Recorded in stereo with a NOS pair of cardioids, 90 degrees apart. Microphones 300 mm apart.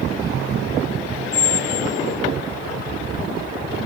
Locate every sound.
1.3 s a squeak: 30° left, 0.6 m